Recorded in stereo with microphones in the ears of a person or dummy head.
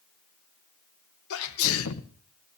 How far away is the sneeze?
About 1.2 m.